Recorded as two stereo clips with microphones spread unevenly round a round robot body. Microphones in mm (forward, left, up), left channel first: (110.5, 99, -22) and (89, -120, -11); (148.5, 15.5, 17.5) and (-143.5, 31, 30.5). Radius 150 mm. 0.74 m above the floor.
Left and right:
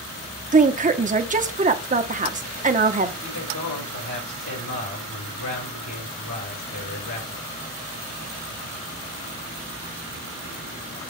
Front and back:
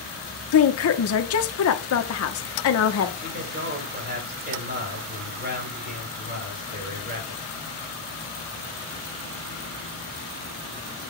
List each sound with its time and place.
0.5 s a woman speaking: 40° right, 1.2 m
3.2 s a man speaking: 120° left, 6 m